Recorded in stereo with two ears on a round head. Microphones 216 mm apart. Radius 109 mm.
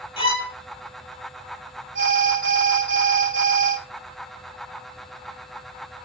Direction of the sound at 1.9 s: 55° right (ahead or behind).